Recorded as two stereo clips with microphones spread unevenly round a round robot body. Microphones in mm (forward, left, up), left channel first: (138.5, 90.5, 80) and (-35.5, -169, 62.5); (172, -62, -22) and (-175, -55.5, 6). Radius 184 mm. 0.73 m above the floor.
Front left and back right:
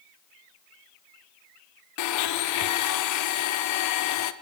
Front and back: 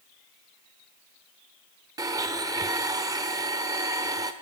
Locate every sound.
2.0 s a blender: 100° left, 0.9 m